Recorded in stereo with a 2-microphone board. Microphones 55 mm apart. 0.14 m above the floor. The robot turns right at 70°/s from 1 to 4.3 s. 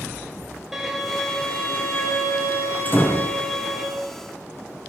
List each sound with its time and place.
0.7 s a violin: 5° right, 1.1 m; by 3.9 s 165° right, 1.1 m
2.9 s a door slam: 70° left, 1.3 m; by 3.3 s 100° left, 1.3 m